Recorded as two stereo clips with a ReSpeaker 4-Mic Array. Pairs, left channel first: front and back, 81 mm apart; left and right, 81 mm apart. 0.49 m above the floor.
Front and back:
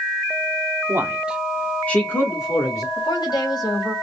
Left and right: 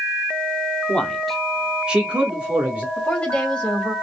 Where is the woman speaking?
15° left, 2.5 m.